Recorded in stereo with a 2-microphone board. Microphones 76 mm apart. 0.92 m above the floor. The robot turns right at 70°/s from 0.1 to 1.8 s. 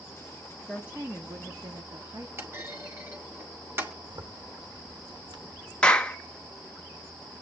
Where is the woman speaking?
175° right, 2.0 m; by 2.3 s 95° right, 2.0 m.